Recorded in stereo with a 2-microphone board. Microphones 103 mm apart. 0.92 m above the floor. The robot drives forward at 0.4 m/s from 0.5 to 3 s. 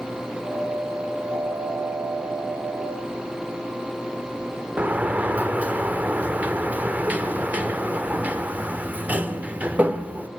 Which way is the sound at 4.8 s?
15° right (ahead or behind).